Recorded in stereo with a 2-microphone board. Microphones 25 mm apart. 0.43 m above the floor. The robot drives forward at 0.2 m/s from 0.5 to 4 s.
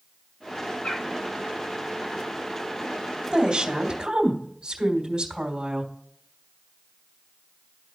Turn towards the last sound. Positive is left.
turn(degrees=-30)  # may be behind; listen again after turning